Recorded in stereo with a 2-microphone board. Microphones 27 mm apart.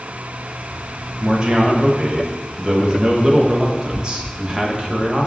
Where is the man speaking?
30° right (ahead or behind), 0.7 m.